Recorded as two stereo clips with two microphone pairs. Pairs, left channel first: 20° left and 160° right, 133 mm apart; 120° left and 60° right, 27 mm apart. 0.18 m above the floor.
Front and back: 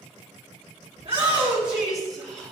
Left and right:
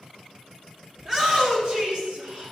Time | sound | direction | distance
1.0 | a shout | 115° right | 1.8 m